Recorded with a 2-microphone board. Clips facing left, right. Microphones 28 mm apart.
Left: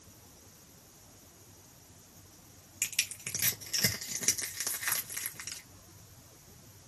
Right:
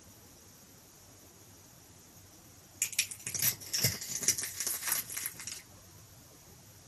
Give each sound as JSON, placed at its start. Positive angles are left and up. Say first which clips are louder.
{"t": 2.8, "sound": "crushing", "louder": "left 2 dB", "side_deg": 35, "distance_m": 1.9}